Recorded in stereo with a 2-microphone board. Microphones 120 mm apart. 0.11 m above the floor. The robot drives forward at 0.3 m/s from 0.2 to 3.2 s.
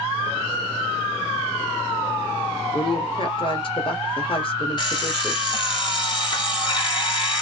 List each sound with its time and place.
2.7 s a woman speaking: 50° left (ahead or behind), 1.6 m
4.8 s an alarm clock: 45° left (ahead or behind), 1.6 m